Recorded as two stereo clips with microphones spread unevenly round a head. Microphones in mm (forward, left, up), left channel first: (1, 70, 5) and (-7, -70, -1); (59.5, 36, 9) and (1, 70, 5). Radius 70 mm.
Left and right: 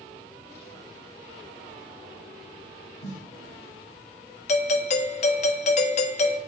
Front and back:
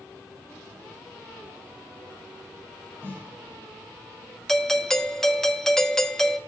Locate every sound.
3.0 s a snare drum: 95° left, 4 m
4.5 s a doorbell: 55° left, 0.8 m